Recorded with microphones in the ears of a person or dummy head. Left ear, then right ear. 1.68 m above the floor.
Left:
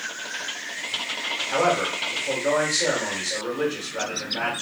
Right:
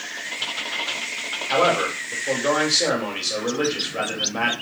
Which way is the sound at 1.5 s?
45° right (ahead or behind).